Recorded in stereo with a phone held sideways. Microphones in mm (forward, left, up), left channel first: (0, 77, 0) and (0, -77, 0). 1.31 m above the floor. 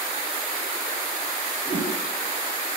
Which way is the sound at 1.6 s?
35° left (ahead or behind).